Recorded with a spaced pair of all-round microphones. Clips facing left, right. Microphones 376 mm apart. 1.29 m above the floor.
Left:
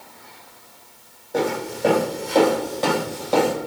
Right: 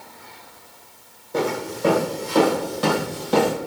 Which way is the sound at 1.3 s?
10° right (ahead or behind).